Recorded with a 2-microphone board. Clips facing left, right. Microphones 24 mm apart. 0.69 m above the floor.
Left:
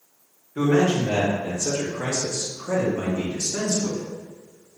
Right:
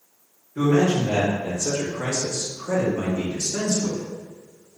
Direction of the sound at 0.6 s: 35° left (ahead or behind).